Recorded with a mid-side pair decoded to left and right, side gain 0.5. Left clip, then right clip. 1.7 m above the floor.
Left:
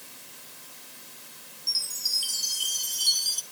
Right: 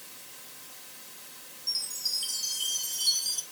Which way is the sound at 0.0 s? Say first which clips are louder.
Left 1 dB; 15° left.